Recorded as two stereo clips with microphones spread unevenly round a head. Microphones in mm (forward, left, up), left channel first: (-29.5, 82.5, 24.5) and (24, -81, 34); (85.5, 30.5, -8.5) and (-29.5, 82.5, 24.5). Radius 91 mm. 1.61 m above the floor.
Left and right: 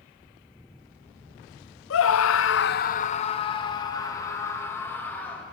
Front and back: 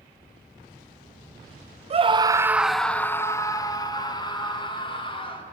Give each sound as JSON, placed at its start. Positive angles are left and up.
{"t": 1.9, "sound": "a scream", "azimuth_deg": 125, "distance_m": 0.7}